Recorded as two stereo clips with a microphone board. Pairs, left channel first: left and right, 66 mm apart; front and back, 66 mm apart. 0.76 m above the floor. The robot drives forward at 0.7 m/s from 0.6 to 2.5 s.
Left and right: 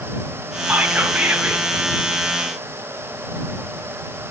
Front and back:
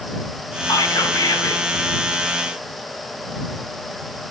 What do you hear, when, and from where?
0.7 s whispering: 5° right, 5.5 m; by 1.6 s 10° right, 4.5 m